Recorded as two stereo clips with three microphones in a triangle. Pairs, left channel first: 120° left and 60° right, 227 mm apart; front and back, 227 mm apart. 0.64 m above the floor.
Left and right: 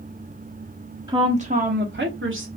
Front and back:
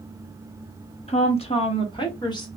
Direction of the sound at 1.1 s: 10° right.